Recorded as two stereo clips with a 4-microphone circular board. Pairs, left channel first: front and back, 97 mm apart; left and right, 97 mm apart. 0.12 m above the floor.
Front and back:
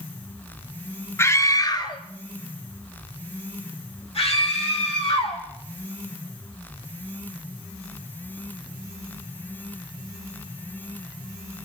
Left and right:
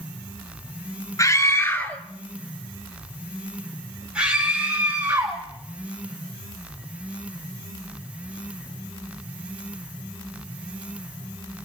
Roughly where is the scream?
Ahead left.